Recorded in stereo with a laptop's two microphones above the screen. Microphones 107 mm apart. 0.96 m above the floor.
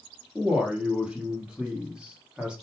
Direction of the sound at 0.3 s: 10° right (ahead or behind).